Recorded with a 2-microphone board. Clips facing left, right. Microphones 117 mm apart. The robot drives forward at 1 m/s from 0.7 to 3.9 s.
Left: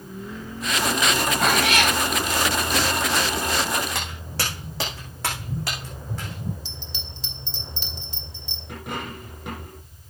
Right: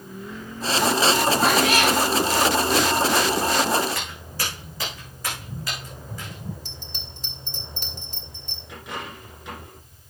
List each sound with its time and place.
1.4 s a cat meowing: 75° left (ahead or behind), 4 m; by 1.9 s 80° left, 4 m
4.0 s footsteps: 75° left (ahead or behind), 6 m; by 6.5 s 65° left (ahead or behind), 6 m
6.7 s a bell: 45° right (ahead or behind), 2.5 m
8.7 s a dropped coin: 55° left (ahead or behind), 6 m